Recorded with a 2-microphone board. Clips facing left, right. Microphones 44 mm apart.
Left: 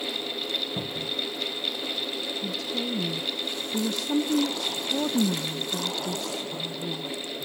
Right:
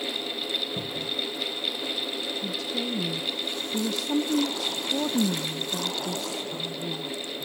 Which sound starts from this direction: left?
A cupboard door, at 0.8 s.